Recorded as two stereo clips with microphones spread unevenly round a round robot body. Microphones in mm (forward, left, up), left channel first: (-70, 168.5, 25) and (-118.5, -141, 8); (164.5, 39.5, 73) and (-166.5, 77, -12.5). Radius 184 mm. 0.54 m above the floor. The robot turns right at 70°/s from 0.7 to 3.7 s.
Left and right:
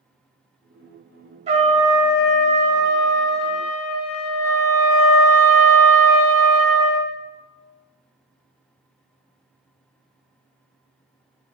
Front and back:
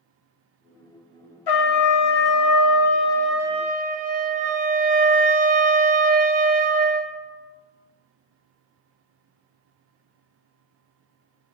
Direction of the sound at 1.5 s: 35° right.